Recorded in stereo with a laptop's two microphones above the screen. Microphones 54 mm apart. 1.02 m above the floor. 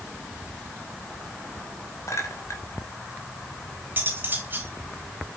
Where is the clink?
65° left (ahead or behind), 2.5 m.